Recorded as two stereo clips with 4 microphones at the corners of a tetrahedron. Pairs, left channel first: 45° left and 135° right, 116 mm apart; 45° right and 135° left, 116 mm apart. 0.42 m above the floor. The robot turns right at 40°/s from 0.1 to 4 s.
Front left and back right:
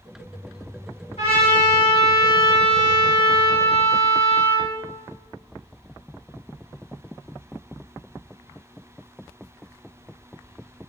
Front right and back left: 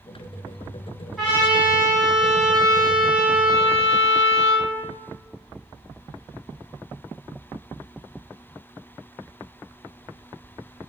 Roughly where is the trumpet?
Ahead left.